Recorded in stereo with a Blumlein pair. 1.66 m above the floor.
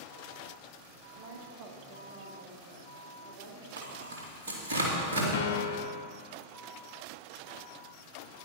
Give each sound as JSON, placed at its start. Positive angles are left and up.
{"t": 1.1, "sound": "a woman speaking", "azimuth_deg": -55, "distance_m": 2.0}
{"t": 3.8, "sound": "tearing paper", "azimuth_deg": -65, "distance_m": 2.5}
{"t": 5.3, "sound": "a piano", "azimuth_deg": 60, "distance_m": 0.6}